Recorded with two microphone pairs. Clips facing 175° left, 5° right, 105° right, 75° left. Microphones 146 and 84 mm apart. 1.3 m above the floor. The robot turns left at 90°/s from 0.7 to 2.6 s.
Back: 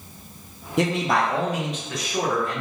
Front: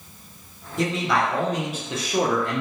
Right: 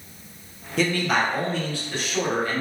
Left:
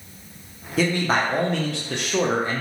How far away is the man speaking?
About 0.7 m.